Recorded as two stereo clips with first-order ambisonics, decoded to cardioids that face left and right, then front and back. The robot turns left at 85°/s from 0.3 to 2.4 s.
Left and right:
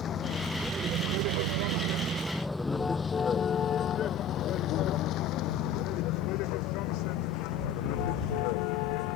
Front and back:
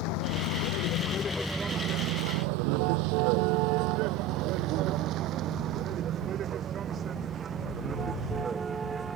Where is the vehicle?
25° left; by 9.2 s 105° left.